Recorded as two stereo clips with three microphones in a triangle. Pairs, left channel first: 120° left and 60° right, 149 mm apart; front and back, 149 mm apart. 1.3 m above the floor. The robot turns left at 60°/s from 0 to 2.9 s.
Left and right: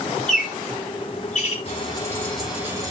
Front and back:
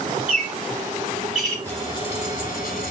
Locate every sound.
0.3 s a bird: 155° left, 5 m; by 1.6 s 80° left, 5 m
1.6 s frying: 75° left, 4 m; by 2.9 s straight ahead, 4 m